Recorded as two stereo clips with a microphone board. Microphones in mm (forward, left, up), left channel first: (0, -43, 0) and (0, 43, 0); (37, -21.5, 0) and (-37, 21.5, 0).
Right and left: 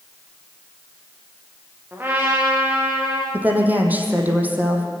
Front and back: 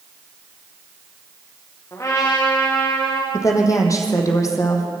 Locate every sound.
1.9 s a trumpet: 25° left, 7 m
3.3 s a woman speaking: 20° left, 4 m